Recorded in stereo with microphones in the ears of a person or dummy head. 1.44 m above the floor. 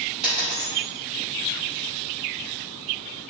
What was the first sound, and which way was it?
A dropped coin, centre (ahead or behind).